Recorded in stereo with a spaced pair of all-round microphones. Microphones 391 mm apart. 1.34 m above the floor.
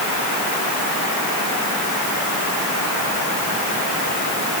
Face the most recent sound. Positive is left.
No sound to turn to.